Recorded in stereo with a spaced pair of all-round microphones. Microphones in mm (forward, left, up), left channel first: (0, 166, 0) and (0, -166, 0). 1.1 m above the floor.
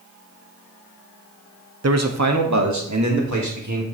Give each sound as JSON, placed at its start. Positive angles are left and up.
{"t": 1.8, "sound": "a man speaking", "side_deg": -50, "distance_m": 0.5}